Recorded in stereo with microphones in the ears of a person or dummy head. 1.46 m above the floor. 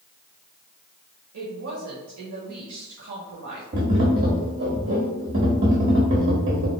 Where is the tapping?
25° right (ahead or behind), 0.9 m.